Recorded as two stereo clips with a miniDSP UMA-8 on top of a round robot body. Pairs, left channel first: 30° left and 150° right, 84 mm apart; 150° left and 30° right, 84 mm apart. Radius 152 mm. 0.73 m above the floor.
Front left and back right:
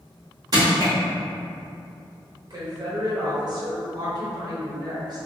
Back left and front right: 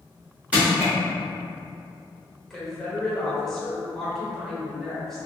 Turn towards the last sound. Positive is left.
turn(degrees=-120)